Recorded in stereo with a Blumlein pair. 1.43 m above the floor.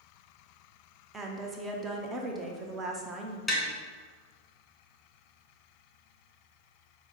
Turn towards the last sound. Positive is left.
turn(degrees=5)